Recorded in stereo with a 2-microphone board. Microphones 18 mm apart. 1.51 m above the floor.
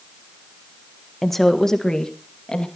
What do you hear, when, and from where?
1.2 s a woman speaking: 10° left (ahead or behind), 1.4 m; by 2.7 s 50° left (ahead or behind), 2.5 m